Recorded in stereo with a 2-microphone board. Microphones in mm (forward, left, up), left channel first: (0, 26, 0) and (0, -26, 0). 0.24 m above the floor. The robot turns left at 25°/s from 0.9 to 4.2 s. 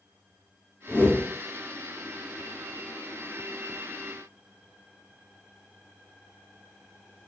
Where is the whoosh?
30° left (ahead or behind), 0.9 m; by 1.3 s 25° left (ahead or behind), 0.9 m.